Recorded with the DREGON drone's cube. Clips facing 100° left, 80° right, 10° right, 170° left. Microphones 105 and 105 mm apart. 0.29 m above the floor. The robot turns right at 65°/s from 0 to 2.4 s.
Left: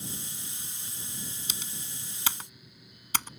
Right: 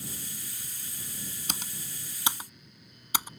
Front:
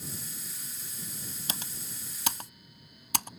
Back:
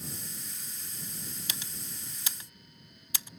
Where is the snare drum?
I don't hear a snare drum.